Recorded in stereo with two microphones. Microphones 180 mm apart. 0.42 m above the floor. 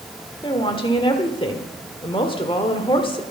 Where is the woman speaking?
30° left (ahead or behind), 1.4 m.